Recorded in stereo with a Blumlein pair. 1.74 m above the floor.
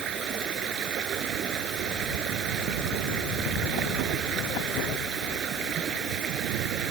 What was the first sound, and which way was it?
Running water, 30° right.